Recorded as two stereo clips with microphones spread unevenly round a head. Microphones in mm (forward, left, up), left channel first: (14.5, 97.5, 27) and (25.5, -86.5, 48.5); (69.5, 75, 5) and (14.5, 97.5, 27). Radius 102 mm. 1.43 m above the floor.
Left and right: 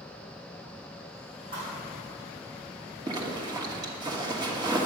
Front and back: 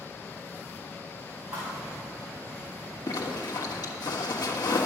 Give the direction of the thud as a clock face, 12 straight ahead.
5 o'clock.